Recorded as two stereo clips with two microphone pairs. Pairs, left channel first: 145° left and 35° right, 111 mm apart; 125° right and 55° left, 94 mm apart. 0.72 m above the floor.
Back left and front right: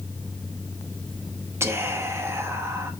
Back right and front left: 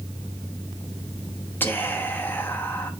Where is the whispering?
75° right, 1.0 m.